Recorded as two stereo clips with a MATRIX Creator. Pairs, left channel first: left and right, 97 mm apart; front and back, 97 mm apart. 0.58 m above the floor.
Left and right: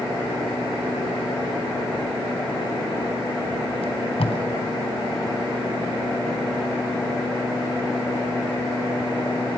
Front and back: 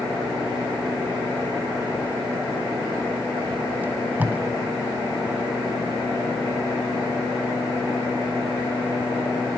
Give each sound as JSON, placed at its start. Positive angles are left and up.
{"t": 3.8, "sound": "tape being pulled", "azimuth_deg": 105, "distance_m": 2.0}